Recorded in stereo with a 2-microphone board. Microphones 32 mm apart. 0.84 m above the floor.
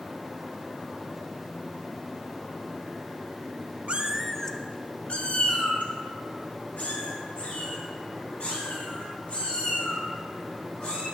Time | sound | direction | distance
3.9 | a cat meowing | 40° right (ahead or behind) | 0.8 m